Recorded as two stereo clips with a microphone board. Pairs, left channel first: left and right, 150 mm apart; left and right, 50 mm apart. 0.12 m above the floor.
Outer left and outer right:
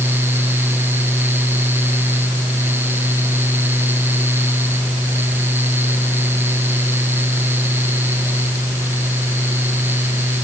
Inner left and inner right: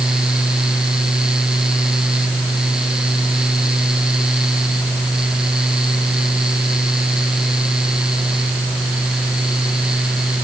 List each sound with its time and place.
Only background noise.